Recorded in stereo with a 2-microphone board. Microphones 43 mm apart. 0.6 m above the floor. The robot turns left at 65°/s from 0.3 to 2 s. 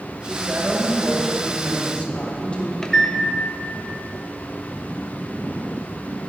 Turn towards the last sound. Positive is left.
turn(degrees=15)  # may be behind; listen again after turning